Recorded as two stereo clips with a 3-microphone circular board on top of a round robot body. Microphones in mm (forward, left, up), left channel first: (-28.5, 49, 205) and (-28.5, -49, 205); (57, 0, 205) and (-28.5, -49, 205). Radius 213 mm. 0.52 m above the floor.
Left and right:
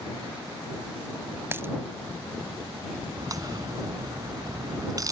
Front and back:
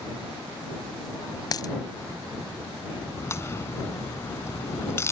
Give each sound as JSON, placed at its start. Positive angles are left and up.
{"t": 1.5, "sound": "a dropped coin", "azimuth_deg": -20}
{"t": 3.2, "sound": "a crack", "azimuth_deg": -35}